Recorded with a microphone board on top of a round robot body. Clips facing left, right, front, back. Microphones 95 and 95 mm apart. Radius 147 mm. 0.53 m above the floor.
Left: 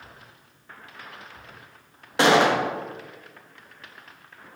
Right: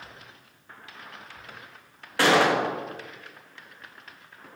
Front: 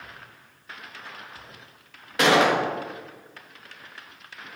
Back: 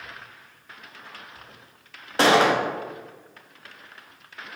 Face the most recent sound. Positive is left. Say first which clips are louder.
# left 2 dB, back 1 dB
turn(degrees=150)